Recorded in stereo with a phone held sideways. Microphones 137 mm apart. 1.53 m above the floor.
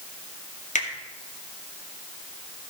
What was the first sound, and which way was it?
A finger snap, 70° left (ahead or behind).